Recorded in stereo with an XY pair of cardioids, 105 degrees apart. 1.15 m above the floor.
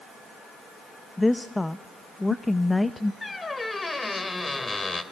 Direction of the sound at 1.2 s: 15° left.